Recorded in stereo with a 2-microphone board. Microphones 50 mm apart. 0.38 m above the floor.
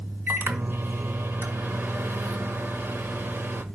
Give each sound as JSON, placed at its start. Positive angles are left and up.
{"t": 0.3, "sound": "a microwave", "side_deg": -45, "distance_m": 1.4}